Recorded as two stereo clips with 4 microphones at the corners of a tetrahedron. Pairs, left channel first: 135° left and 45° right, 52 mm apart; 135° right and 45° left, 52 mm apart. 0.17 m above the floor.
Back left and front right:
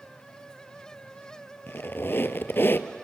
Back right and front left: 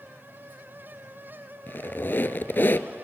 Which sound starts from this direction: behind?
A squeak, at 1.7 s.